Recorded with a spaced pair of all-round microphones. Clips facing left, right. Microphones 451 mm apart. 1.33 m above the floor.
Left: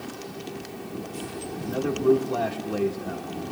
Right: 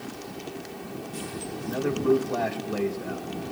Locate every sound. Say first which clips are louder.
1.6 s a man speaking: left 2 dB; 50° left (ahead or behind), 1.6 m